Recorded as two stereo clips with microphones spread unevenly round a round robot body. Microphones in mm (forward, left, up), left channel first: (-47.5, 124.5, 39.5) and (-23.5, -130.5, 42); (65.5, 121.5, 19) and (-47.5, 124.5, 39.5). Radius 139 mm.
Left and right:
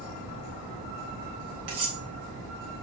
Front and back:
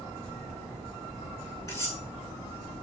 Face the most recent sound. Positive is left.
turn(degrees=-75)